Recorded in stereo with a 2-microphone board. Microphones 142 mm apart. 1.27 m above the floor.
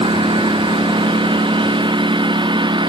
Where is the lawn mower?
35° right (ahead or behind).